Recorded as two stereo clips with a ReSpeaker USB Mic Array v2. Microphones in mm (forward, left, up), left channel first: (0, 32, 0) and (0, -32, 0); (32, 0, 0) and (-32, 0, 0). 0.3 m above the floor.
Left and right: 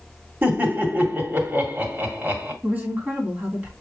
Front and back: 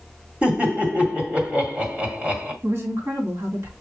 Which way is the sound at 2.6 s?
150° right.